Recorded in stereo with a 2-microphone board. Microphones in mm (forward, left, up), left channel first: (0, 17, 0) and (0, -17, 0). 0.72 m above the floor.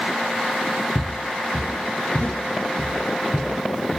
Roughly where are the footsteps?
Left.